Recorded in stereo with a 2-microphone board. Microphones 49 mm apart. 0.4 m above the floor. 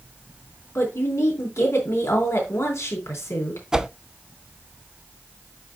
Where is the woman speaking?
70° left (ahead or behind), 3.5 m.